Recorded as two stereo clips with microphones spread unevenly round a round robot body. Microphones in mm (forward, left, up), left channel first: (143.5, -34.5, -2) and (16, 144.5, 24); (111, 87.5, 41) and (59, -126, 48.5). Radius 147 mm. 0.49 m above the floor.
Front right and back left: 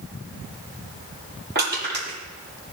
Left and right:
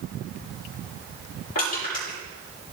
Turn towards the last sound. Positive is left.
turn(degrees=85)